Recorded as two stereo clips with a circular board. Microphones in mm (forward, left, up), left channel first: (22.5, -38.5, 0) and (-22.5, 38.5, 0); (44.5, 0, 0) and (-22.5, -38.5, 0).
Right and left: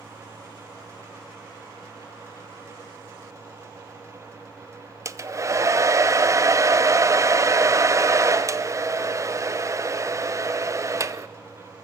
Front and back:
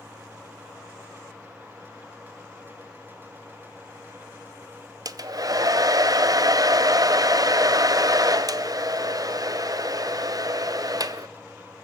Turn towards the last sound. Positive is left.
turn(degrees=175)